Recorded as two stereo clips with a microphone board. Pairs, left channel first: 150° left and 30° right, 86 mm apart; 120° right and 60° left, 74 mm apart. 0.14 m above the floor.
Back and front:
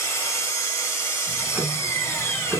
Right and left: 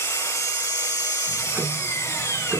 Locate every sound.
0.0 s an engine running: 160° right, 0.9 m
1.3 s ticking: 25° left, 1.1 m